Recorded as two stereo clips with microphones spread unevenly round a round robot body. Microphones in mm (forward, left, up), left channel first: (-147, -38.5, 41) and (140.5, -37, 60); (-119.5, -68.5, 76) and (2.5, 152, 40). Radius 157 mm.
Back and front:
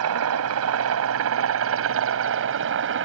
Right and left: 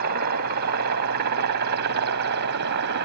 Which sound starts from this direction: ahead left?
A helicopter, at 0.0 s.